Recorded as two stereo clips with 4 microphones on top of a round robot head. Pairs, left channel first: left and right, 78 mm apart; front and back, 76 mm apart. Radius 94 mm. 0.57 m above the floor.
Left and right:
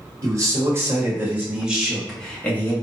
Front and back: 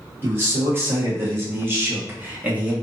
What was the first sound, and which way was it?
A man speaking, 130° right.